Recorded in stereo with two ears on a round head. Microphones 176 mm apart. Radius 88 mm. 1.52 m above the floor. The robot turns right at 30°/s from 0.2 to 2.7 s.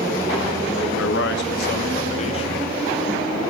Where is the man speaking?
110° left, 2 m; by 2.7 s 160° left, 2 m.